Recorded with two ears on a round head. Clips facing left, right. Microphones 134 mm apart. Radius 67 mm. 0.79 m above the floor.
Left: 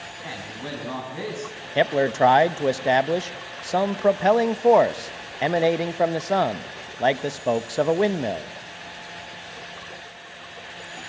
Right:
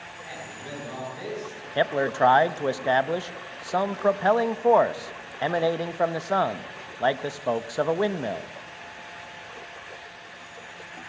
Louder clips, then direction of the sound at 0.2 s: Left 5 dB; 75° left (ahead or behind).